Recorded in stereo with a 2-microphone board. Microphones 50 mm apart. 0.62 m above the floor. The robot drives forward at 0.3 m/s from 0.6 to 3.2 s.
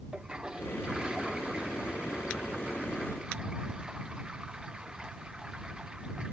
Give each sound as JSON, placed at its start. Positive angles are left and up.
{"t": 0.1, "sound": "a toilet flushing", "side_deg": -15}